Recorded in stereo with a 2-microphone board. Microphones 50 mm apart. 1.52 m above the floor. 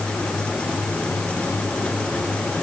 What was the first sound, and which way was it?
Only background noise.